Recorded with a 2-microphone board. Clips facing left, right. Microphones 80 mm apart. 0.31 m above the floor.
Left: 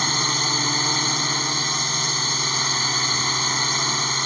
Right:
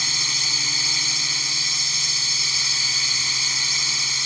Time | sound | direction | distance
0.0 | a drone | 45° left (ahead or behind) | ?